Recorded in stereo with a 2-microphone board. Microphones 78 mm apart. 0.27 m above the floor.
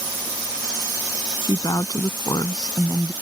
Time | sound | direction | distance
1.4 | a woman speaking | 55° left (ahead or behind) | ?